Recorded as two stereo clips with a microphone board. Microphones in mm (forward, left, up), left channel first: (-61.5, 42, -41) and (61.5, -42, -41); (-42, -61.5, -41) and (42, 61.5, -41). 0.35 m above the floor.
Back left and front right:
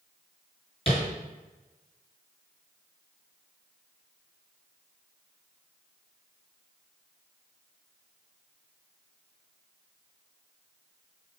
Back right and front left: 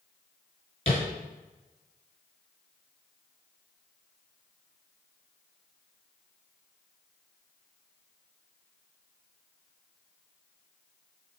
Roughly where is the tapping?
Behind.